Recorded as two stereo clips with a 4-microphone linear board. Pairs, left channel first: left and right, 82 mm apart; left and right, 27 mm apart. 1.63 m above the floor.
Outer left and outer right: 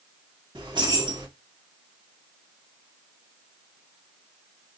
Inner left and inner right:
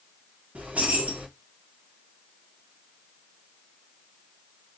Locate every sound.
0.6 s keys jangling: 70° right (ahead or behind), 2.0 m